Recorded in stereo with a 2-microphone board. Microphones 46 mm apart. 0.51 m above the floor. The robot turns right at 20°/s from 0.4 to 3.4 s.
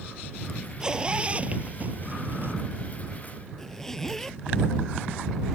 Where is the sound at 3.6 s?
10° left (ahead or behind).